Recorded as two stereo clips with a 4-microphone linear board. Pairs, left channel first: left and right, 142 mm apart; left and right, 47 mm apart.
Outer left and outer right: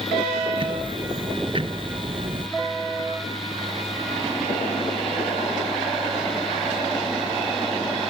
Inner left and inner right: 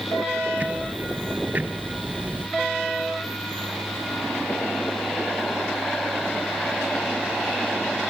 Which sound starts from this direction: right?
Ticking, at 0.6 s.